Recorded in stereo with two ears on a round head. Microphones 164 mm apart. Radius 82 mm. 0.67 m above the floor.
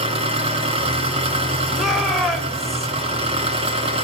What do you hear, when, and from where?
0.0 s an engine running: 35° right (ahead or behind), 3 m
1.7 s a shout: centre (ahead or behind), 3.5 m